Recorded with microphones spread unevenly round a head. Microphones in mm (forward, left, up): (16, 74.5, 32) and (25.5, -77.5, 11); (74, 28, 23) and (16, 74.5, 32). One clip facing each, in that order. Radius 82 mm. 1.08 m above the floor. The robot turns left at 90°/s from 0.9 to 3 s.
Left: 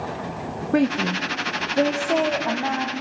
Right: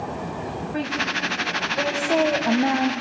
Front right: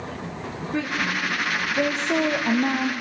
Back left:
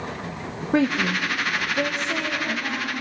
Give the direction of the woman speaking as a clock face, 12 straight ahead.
8 o'clock.